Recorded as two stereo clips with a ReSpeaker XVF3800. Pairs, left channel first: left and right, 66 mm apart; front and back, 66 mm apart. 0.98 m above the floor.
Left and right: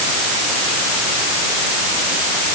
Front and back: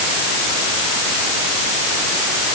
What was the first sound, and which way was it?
Only background noise.